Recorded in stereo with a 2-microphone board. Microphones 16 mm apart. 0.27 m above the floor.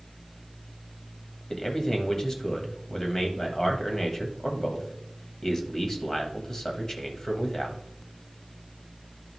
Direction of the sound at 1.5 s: 25° left (ahead or behind).